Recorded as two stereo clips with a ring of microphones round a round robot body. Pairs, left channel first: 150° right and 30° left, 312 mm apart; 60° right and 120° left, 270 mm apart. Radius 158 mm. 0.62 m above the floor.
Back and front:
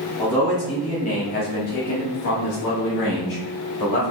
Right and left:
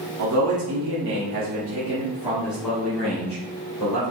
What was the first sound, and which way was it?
A man speaking, 125° left.